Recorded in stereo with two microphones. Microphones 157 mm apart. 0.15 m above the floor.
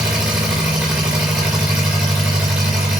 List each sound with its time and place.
0.0 s an engine running: 10° right (ahead or behind), 3.5 m